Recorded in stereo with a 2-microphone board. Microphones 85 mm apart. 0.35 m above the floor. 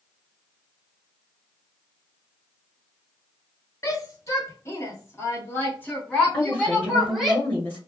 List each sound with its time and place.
3.8 s a shout: 40° left (ahead or behind), 1.4 m; by 7.3 s 5° left (ahead or behind), 1.5 m
6.3 s a woman speaking: 20° left (ahead or behind), 1.9 m